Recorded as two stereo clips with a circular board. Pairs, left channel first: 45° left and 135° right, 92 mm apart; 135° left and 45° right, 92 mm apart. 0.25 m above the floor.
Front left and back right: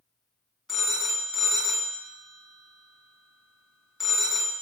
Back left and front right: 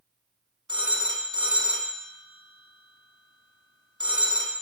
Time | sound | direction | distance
0.7 | a phone ringing | 50° right | 1.1 m